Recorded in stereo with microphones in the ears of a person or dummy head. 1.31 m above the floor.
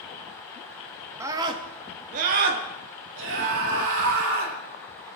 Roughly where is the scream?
Centre.